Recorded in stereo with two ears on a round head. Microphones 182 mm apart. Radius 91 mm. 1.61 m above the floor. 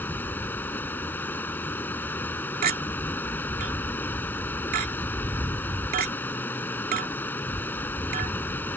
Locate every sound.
0.0 s running water: 10° left (ahead or behind)
2.6 s a clink: 50° right (ahead or behind)